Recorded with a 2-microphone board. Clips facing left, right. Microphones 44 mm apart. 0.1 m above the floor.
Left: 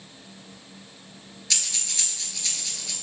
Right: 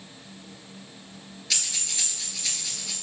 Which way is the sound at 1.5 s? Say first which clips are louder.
Even; 5° right (ahead or behind).